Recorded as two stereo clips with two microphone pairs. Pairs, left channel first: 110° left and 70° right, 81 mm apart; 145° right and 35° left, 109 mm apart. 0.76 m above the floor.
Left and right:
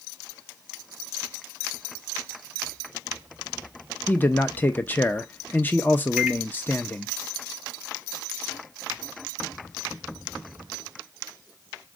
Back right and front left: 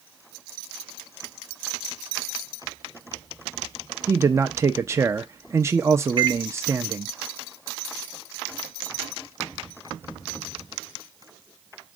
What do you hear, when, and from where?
4.1 s a man speaking: 65° left, 0.5 m
6.2 s a microwave: straight ahead, 0.6 m